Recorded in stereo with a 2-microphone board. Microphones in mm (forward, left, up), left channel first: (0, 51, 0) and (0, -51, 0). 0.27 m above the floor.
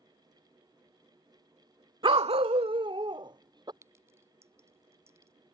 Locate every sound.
2.0 s a dog barking: 50° right (ahead or behind); by 3.7 s 45° right (ahead or behind)
3.8 s a clink: 30° right (ahead or behind)